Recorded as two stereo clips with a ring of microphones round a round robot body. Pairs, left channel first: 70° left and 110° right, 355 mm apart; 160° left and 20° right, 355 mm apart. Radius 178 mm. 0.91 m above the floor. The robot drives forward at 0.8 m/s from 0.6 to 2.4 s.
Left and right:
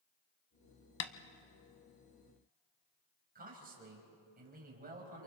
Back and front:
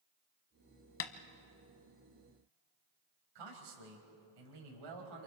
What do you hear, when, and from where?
1.0 s tapping: 110° left, 1.2 m; by 1.1 s 115° left, 1.2 m
3.4 s a man speaking: 45° right, 4.5 m